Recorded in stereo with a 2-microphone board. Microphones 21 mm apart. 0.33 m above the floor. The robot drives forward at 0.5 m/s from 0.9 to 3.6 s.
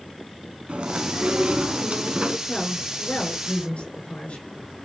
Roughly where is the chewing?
Right.